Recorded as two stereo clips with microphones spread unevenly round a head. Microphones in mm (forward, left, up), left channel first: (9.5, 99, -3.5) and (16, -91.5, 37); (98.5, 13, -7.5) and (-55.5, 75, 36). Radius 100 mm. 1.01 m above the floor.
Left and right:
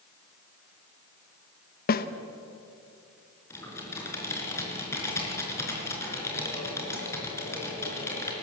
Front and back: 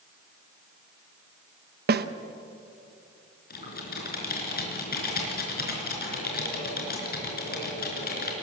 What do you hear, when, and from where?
1.9 s a snare drum: 125° left, 0.9 m
3.5 s typing on a keyboard: 10° left, 4.5 m